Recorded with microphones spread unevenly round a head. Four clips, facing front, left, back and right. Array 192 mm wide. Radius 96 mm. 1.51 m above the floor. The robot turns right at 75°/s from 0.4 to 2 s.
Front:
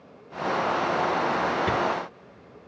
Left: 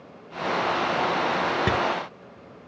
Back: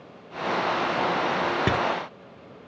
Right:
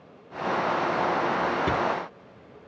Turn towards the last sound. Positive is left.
turn(degrees=165)